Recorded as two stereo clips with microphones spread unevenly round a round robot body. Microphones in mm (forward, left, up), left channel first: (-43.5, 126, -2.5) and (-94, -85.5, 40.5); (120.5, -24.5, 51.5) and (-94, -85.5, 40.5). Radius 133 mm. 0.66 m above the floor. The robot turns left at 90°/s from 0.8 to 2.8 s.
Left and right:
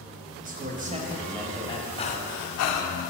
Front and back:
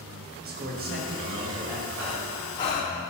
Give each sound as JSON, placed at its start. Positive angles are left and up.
{"t": 0.4, "sound": "a man speaking", "azimuth_deg": -160, "distance_m": 0.9}
{"t": 2.0, "sound": "breathing", "azimuth_deg": 145, "distance_m": 0.7}